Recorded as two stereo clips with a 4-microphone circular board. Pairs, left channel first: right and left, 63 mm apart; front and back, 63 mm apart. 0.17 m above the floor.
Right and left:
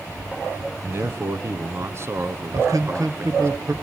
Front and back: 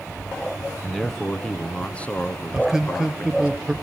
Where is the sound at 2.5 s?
100° left, 3 m.